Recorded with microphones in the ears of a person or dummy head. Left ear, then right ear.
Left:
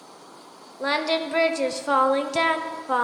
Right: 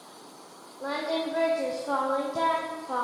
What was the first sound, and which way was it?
Singing, 70° left (ahead or behind).